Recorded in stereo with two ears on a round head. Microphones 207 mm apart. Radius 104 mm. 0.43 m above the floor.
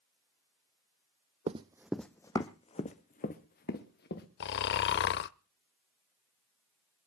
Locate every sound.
1.5 s running footsteps: 30° right (ahead or behind), 0.8 m; by 4.3 s 45° left (ahead or behind), 2.5 m
4.4 s snoring: 45° left (ahead or behind), 0.6 m